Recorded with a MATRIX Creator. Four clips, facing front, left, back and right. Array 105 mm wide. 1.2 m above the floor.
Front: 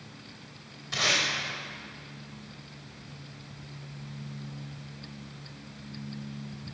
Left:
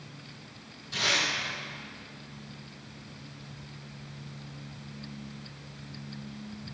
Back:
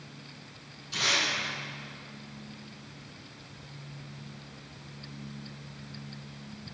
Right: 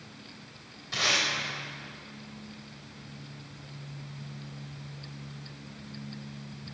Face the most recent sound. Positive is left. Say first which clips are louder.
# even, front 1 dB
turn(degrees=-30)